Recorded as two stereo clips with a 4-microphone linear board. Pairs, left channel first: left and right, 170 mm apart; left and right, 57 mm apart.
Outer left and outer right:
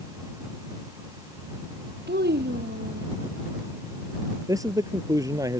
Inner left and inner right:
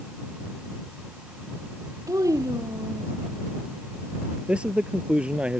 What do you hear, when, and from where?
2.1 s a child speaking: 85° right
4.5 s a man speaking: 20° right (ahead or behind)